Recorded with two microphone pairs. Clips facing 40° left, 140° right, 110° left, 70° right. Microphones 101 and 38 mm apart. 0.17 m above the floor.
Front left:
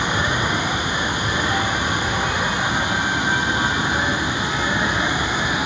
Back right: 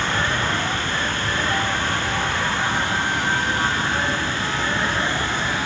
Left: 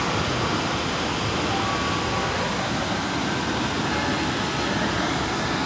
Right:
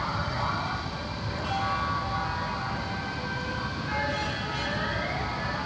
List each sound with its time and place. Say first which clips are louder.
0.0 s running water: front left 1 dB, left 5 dB; 115° left